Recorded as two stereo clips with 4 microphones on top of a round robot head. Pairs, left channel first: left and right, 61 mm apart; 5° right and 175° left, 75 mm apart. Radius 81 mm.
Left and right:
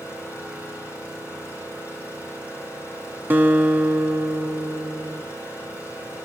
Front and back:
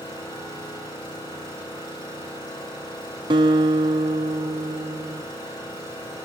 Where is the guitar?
150° right, 0.9 m.